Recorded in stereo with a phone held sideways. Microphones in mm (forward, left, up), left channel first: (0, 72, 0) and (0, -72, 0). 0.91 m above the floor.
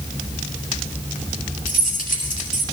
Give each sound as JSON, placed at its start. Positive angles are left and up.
{"t": 1.7, "sound": "keys jangling", "side_deg": 75, "distance_m": 4.5}